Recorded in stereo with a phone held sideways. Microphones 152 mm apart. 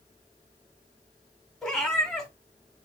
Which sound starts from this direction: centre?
A cat meowing, at 1.6 s.